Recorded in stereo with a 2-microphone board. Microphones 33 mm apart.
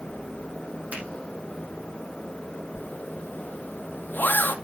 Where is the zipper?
70° left (ahead or behind), 1.4 m.